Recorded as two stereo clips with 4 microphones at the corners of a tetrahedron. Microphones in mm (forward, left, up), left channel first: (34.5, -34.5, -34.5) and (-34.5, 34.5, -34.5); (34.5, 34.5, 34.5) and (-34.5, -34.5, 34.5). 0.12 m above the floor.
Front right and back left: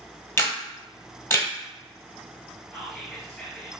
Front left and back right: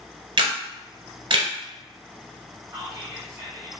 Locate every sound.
0.4 s a camera shutter: 105° right, 1.1 m
2.7 s whispering: 110° right, 1.8 m